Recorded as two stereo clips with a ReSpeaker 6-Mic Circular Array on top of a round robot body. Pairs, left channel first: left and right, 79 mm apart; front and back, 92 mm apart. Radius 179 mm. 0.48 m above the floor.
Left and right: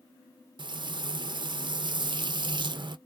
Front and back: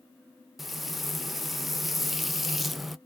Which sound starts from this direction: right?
Frying, at 0.6 s.